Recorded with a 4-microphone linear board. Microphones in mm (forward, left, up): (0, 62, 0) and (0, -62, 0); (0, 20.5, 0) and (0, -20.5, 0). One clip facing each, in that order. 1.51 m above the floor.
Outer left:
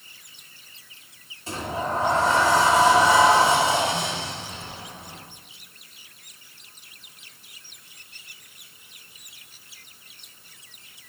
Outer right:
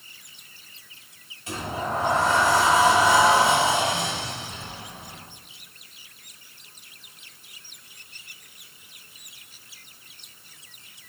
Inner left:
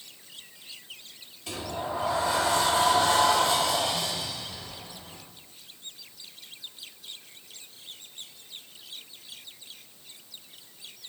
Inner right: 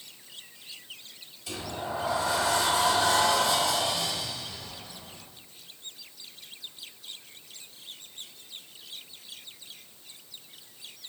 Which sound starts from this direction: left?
A sliding door, at 1.5 s.